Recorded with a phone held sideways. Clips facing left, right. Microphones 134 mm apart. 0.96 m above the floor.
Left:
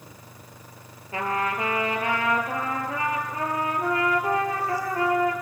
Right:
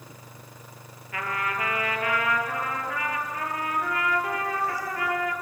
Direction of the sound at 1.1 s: 30° left (ahead or behind).